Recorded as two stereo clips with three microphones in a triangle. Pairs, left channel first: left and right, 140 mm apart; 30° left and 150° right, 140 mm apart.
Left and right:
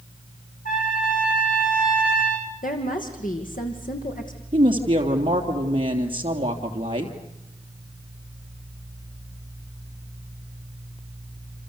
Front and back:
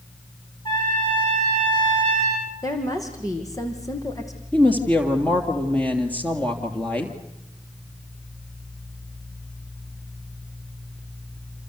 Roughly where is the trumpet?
Left.